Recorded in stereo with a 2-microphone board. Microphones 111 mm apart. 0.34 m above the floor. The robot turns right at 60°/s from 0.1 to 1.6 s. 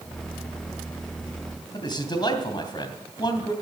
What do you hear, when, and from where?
1.7 s a man speaking: 40° left (ahead or behind), 2.5 m